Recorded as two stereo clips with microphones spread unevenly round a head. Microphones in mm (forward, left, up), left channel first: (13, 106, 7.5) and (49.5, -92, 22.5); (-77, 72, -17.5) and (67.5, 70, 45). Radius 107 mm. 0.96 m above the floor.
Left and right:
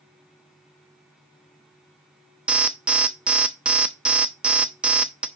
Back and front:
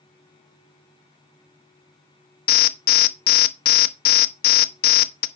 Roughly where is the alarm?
Behind.